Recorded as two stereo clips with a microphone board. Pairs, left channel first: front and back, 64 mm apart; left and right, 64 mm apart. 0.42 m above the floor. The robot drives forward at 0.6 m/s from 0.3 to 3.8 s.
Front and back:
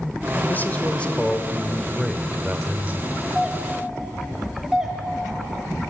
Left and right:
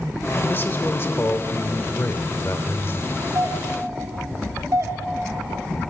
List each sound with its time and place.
0.5 s a man speaking: 50° left, 1.5 m; by 3.2 s 135° left, 1.5 m
3.4 s a doorbell: 90° right, 2.5 m; by 5.0 s 100° right, 2.5 m